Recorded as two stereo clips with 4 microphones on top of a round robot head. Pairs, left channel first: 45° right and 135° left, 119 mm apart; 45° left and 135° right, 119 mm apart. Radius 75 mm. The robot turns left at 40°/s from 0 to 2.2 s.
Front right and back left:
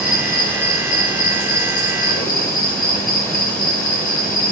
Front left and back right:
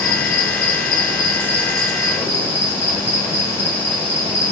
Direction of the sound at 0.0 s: 55° left.